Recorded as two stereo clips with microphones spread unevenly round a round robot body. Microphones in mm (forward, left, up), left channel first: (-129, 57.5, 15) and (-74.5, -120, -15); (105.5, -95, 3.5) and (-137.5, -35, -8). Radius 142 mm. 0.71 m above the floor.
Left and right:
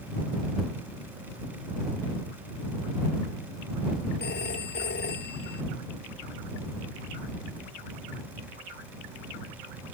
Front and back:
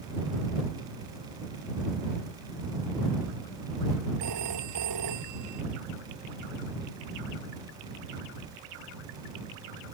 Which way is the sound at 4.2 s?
135° left.